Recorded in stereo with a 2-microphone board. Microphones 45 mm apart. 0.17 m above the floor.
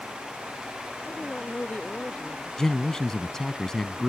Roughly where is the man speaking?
Centre.